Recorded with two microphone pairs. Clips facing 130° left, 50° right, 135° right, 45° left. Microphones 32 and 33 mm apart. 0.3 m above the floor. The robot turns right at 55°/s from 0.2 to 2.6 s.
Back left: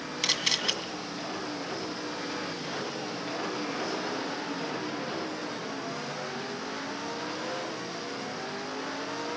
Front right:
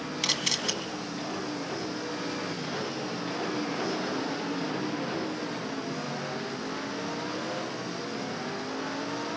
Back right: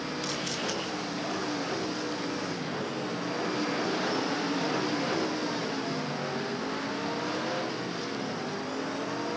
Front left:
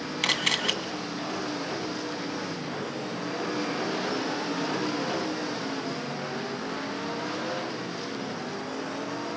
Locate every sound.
0.2 s a camera shutter: 40° left, 2 m; by 0.7 s 65° left, 2 m